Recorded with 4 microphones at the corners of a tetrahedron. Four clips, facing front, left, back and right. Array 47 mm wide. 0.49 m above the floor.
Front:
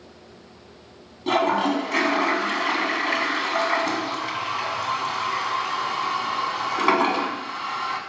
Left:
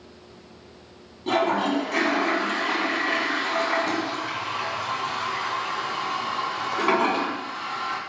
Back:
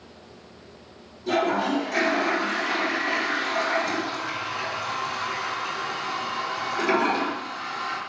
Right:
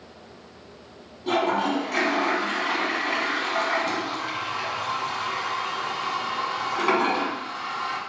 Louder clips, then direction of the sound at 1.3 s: Left 1 dB, front 2 dB; 5° left.